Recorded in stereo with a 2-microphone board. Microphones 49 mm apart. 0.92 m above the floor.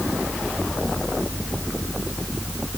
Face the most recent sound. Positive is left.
No sound to turn to.